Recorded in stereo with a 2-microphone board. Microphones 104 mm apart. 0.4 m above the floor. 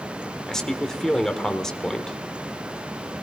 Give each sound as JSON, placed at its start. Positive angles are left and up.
{"t": 0.5, "sound": "a man speaking", "side_deg": 5, "distance_m": 1.0}